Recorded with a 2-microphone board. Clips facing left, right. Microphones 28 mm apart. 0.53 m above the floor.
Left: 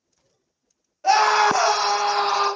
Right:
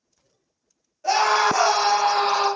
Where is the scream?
30° left (ahead or behind), 0.8 m; by 2.5 s 30° right (ahead or behind), 1.2 m.